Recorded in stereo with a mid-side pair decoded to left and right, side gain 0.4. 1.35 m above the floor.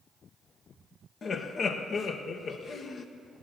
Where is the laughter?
55° left, 1.3 m.